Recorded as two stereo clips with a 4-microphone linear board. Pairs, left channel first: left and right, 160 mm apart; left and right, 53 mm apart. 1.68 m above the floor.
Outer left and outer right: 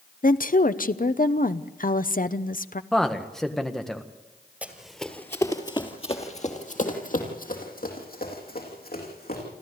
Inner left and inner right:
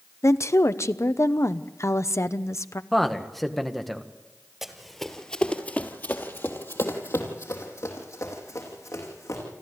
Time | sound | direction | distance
0.2 | a woman speaking | 60° left (ahead or behind) | 0.8 m
2.9 | a man speaking | 5° left (ahead or behind) | 1.6 m
4.6 | running footsteps | 10° right (ahead or behind) | 2 m